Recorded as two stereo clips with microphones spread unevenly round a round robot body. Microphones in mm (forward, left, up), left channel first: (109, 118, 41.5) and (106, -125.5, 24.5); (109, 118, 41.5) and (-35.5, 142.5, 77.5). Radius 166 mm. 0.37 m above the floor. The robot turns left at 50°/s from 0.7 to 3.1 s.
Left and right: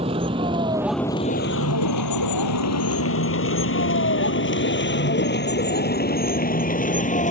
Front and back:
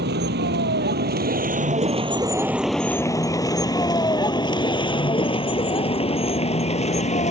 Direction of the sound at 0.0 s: 165° right.